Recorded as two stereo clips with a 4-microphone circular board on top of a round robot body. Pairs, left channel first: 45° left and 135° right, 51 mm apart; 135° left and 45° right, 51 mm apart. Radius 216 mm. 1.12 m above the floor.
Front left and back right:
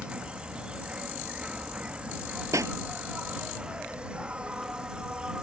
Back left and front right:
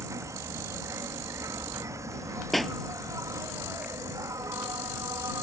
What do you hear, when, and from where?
0.0 s an insect: 65° right
2.5 s a pop: 135° right